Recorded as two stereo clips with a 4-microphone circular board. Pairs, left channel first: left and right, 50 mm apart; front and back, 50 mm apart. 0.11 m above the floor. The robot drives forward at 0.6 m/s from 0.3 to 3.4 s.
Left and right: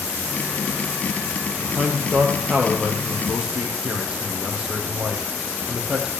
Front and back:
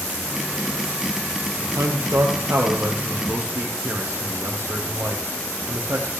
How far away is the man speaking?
About 2.5 m.